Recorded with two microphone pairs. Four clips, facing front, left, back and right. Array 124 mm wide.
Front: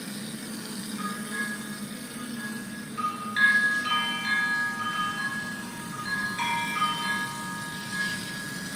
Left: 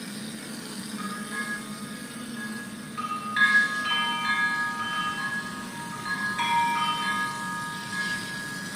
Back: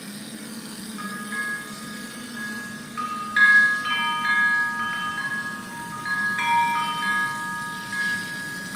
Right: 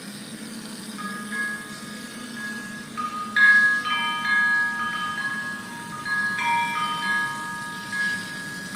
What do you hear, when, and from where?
1.0 s a bell: 160° right, 1.9 m